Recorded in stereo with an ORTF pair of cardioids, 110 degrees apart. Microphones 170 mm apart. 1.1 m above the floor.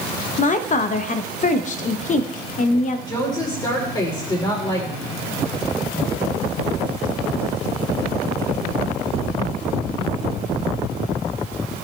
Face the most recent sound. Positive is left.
turn(degrees=25)